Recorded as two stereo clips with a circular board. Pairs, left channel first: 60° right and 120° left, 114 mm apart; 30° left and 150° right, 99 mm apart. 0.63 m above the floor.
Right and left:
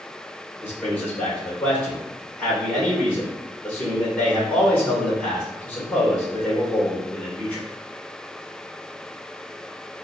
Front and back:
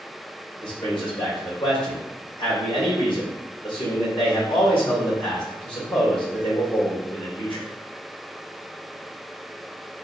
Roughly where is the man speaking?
Ahead.